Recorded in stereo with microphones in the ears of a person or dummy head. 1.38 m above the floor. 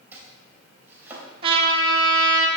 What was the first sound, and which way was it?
Chopping, 15° right (ahead or behind).